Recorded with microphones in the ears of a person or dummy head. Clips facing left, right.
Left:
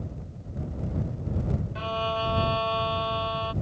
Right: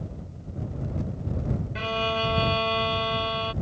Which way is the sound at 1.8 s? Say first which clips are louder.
Right 2 dB; 25° right (ahead or behind).